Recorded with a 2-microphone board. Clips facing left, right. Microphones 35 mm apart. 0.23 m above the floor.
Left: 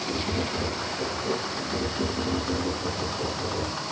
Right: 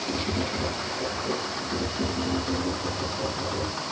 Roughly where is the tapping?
Centre.